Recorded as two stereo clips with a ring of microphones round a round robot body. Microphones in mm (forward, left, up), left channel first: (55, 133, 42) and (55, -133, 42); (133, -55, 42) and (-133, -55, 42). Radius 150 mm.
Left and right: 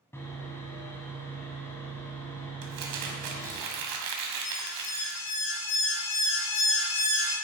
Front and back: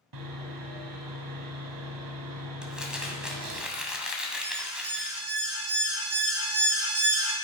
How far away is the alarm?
About 3 m.